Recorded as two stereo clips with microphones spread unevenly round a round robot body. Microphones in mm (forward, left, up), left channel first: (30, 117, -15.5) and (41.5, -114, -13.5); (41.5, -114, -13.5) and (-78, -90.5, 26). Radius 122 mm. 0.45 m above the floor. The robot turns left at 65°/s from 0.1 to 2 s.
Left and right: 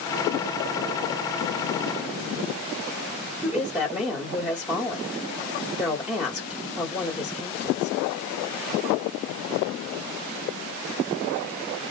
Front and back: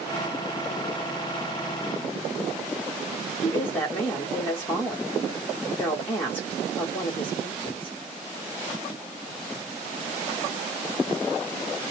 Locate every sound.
3.4 s a woman speaking: 5° right, 1.2 m